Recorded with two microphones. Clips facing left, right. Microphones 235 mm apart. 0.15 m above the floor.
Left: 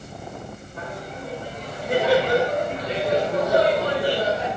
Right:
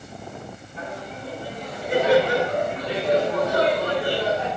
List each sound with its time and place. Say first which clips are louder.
0.8 s laughter: even; 50° left (ahead or behind), 3.5 m; by 4.5 s 40° left (ahead or behind), 5.5 m